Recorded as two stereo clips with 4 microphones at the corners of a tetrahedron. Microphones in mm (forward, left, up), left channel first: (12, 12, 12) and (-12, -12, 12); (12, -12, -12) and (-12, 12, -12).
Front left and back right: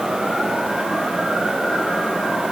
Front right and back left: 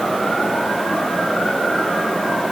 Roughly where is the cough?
I don't hear a cough.